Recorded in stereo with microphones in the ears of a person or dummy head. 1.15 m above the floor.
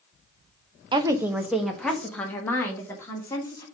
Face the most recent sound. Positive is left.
turn(degrees=15)  # may be behind; listen again after turning